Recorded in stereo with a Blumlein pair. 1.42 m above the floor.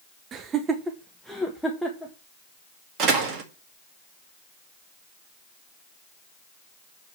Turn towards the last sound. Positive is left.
turn(degrees=-35)